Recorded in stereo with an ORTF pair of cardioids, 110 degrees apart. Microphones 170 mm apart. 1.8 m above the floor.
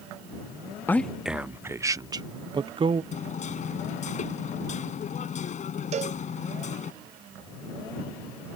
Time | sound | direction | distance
0.9 | a man speaking | 15° left | ?
3.1 | hammering | 45° left | ?
5.9 | a cowbell | 40° right | ?